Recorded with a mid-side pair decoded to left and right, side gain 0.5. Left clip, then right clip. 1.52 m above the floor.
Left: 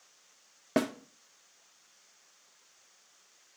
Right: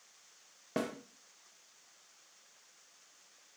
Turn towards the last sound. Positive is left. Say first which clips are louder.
# left 7 dB
turn(degrees=50)